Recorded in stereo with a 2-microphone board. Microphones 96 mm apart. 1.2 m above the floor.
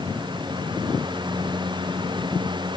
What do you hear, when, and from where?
Only background noise.